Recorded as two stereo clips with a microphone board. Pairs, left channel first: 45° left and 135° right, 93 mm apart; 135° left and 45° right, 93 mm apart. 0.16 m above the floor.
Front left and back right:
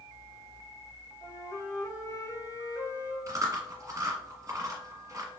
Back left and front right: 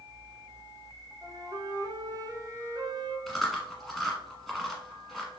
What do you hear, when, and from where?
1.2 s a flute: 5° right, 0.6 m
3.3 s chewing: 135° right, 1.2 m